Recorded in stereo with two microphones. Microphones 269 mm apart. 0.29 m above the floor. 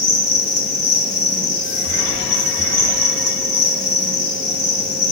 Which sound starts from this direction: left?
An insect, at 0.0 s.